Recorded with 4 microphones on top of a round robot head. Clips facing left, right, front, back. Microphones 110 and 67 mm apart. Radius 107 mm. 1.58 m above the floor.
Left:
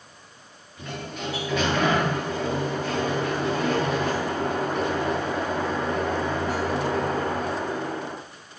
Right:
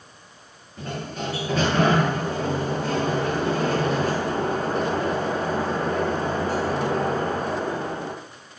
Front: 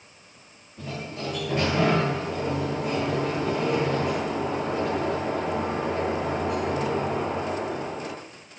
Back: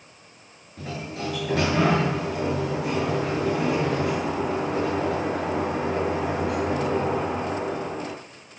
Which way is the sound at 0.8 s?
150° right.